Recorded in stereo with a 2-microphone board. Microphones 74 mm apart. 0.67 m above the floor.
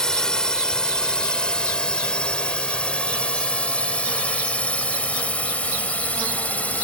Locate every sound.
0.0 s a drone: 10° left (ahead or behind); by 6.8 s 20° left (ahead or behind)